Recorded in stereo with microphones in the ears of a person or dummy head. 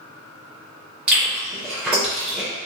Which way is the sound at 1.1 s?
5° right (ahead or behind).